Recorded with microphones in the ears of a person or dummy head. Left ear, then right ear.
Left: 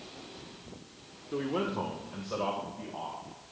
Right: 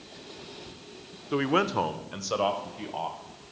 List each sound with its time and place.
1.3 s a man speaking: 40° right (ahead or behind), 0.6 m; by 3.2 s 70° right (ahead or behind), 1.6 m